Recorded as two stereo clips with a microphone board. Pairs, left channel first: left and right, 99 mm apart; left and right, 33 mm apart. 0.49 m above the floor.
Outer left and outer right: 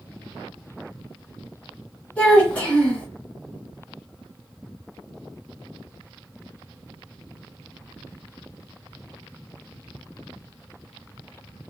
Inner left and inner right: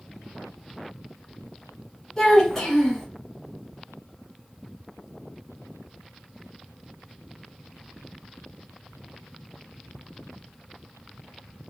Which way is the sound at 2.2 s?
15° left (ahead or behind).